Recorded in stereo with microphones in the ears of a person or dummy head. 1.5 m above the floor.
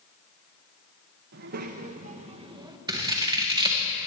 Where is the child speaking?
55° right (ahead or behind), 1.2 m; by 2.8 s 20° right (ahead or behind), 1.2 m.